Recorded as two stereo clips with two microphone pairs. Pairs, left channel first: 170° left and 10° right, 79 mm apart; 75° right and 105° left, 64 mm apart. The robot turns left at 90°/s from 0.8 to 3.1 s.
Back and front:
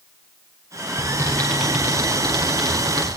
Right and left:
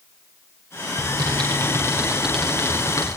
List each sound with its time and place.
1.0 s typing on a keyboard: 135° left, 8.5 m; by 3.1 s 50° right, 8.5 m